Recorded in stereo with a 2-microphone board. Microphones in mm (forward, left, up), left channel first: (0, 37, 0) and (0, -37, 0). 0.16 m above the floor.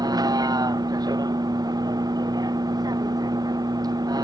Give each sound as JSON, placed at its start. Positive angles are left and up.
{"t": 0.0, "sound": "a vehicle", "side_deg": -65}